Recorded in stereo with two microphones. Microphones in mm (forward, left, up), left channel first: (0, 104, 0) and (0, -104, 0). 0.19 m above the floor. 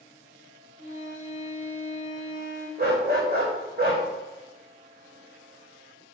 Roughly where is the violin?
Right.